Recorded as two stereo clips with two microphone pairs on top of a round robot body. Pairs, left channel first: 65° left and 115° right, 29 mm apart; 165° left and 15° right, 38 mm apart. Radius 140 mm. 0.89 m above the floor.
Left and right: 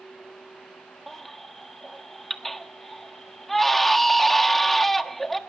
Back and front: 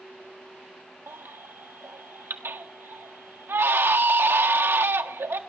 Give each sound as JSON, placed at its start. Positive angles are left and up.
{"t": 1.1, "sound": "a baby crying", "azimuth_deg": -20, "distance_m": 1.5}